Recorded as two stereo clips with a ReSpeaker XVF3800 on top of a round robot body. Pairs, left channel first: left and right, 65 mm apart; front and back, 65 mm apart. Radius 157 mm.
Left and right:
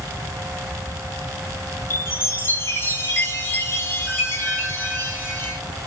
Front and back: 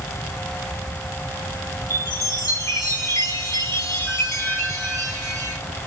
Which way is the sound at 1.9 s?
35° left.